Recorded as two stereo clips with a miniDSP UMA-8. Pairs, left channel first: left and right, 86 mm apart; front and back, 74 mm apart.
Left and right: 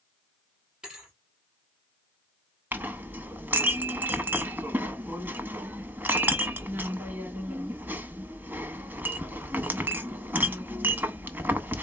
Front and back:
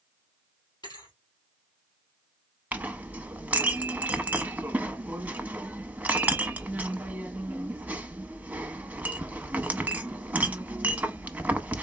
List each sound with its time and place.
0.8 s a thud: 10° right, 2.5 m
2.7 s a clink: 135° right, 0.6 m